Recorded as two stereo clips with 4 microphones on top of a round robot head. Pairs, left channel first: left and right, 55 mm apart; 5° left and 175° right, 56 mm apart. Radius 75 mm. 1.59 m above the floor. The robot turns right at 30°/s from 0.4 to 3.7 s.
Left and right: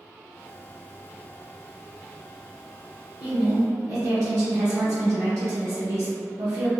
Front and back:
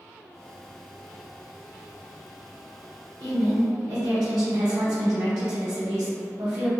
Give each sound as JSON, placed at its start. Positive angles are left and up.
{"t": 3.2, "sound": "a woman speaking", "azimuth_deg": -155, "distance_m": 0.8}